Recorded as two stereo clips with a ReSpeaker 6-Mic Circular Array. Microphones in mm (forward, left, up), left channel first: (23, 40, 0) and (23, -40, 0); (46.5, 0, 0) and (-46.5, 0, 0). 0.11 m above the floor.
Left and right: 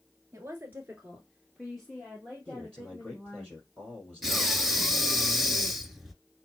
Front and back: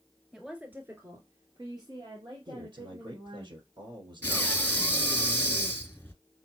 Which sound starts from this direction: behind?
A man speaking, at 2.5 s.